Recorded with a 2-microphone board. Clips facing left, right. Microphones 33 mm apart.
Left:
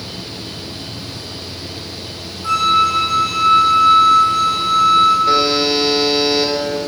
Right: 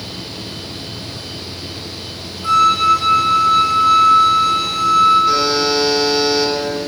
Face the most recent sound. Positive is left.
turn(degrees=35)  # may be behind; listen again after turning